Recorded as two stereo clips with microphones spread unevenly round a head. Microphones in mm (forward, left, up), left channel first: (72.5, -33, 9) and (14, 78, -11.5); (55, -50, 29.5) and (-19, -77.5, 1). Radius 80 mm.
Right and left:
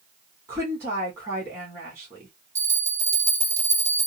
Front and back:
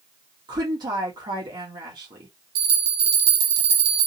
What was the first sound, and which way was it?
A woman speaking, 170° right.